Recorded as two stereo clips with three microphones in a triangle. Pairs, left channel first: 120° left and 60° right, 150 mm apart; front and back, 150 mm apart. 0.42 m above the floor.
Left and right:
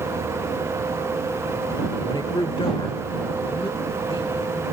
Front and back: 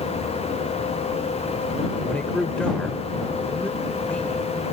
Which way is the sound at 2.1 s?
80° left.